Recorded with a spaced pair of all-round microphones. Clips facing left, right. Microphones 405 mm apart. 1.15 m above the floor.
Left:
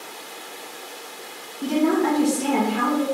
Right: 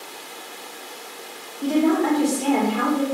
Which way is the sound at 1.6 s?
25° left (ahead or behind).